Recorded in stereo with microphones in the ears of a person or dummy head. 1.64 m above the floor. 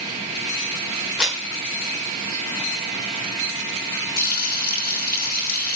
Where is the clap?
Centre (ahead or behind), 6.5 m.